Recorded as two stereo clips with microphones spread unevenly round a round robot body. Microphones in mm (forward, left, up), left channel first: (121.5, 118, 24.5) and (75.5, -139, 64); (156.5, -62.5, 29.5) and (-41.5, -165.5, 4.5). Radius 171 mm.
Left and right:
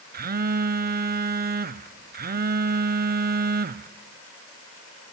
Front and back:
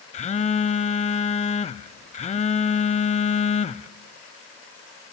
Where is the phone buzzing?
40° right, 0.6 m.